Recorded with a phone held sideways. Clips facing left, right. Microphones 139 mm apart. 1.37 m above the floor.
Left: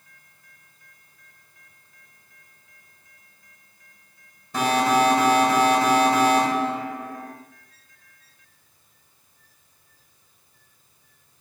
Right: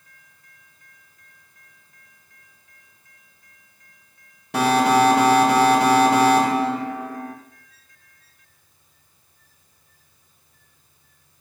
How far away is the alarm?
About 7.5 m.